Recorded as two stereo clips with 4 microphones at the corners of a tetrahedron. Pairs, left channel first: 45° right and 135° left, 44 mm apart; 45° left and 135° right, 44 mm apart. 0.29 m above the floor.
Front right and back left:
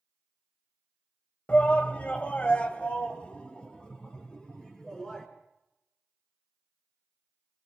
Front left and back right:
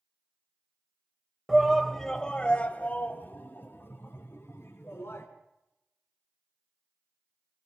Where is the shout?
65° right, 1.3 m; by 5.3 s 30° left, 3.5 m.